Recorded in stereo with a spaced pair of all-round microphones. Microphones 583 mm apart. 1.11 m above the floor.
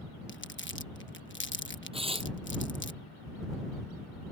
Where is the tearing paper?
10° right (ahead or behind).